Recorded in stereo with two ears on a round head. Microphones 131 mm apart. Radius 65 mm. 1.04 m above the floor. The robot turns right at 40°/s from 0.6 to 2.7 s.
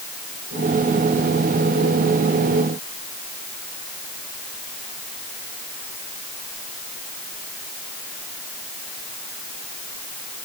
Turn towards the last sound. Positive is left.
No sound to turn to.